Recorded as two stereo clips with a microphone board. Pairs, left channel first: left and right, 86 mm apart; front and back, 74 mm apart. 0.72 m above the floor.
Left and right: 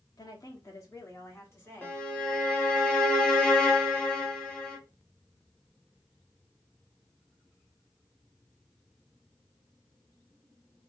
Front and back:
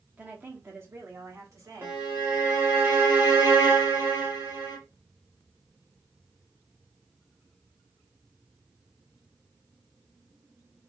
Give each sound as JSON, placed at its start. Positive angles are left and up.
{"t": 0.2, "sound": "a woman speaking", "azimuth_deg": 120, "distance_m": 1.1}
{"t": 1.8, "sound": "a violin", "azimuth_deg": 155, "distance_m": 0.9}